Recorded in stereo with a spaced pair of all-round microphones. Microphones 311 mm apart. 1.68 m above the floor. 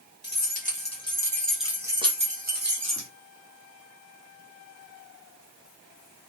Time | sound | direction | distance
0.2 | keys jangling | 35° left (ahead or behind) | 1.4 m